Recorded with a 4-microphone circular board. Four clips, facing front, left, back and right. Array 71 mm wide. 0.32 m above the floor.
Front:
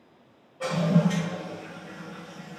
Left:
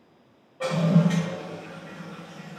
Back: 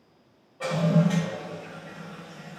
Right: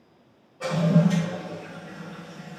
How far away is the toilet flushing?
About 1.5 m.